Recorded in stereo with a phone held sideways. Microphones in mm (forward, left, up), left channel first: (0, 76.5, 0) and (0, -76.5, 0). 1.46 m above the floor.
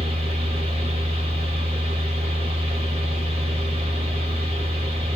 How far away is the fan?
About 1.3 m.